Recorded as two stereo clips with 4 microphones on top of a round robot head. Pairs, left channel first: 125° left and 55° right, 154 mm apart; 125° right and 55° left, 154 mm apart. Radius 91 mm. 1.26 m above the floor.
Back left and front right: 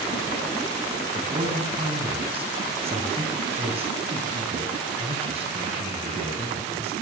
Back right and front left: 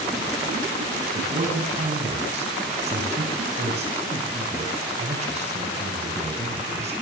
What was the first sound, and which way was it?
A man speaking, straight ahead.